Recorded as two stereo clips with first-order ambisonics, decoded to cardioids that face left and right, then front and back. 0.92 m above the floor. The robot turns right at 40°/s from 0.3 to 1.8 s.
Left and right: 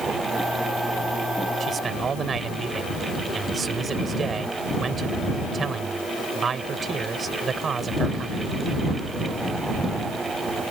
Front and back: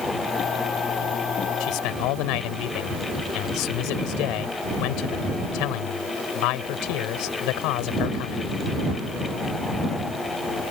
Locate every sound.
1.6 s a man speaking: 30° right; by 8.4 s 25° right